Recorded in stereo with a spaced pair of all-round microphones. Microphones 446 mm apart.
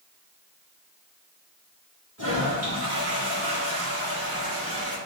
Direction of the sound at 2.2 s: 35° right (ahead or behind).